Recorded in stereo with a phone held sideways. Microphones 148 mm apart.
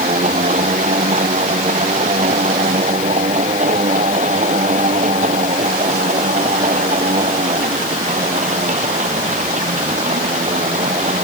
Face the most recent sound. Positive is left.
turn(degrees=-55)  # may be behind; listen again after turning